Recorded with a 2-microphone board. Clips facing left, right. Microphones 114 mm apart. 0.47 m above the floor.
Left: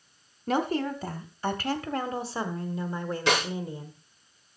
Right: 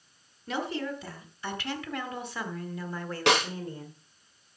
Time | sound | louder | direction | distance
0.5 | a woman speaking | left 6 dB | 45° left (ahead or behind) | 1.8 m
3.3 | a snare drum | right 2 dB | 70° right (ahead or behind) | 5.5 m